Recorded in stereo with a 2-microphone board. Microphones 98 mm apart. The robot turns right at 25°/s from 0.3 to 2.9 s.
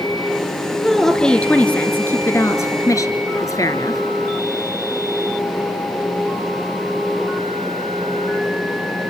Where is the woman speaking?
Straight ahead, 2.5 m; by 4.0 s 55° left, 2.5 m.